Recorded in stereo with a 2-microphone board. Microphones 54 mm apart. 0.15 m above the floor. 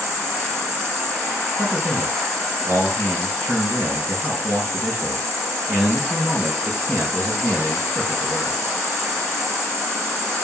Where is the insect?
50° right (ahead or behind), 1.7 m.